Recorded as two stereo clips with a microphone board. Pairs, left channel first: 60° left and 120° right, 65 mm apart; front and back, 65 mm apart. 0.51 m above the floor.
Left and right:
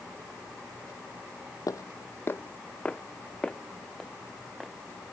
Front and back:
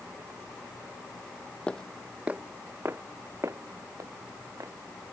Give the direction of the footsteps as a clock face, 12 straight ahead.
10 o'clock.